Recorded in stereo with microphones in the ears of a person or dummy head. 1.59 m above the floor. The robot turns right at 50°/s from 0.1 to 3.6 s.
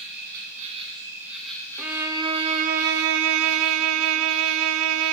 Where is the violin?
Straight behind, 0.5 m; by 5.1 s 90° right, 0.5 m.